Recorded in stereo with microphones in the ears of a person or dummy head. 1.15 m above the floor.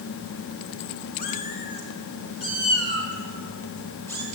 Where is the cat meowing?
45° left (ahead or behind), 3 m; by 4.2 s 10° left (ahead or behind), 5.5 m.